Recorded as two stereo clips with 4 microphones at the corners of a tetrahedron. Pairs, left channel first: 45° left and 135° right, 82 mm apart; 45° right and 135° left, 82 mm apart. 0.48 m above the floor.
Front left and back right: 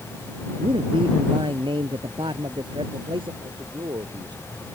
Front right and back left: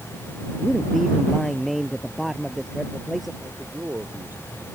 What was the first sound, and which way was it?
A man speaking, 135° right.